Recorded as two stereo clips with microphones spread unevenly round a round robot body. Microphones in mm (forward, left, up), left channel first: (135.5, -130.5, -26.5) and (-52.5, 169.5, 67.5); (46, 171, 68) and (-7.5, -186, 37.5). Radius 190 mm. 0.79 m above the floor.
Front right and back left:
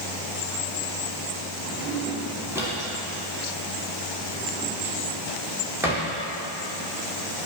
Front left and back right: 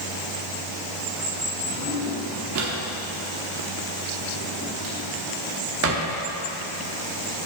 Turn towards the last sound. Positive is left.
turn(degrees=-150)